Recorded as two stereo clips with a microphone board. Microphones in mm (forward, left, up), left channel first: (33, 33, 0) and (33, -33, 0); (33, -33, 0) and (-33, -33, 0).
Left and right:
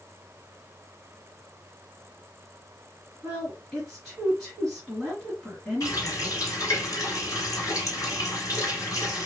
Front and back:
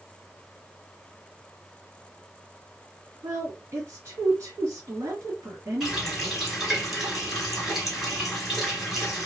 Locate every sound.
3.2 s a woman speaking: 175° left, 1.7 m
5.8 s a running tap: 95° left, 1.6 m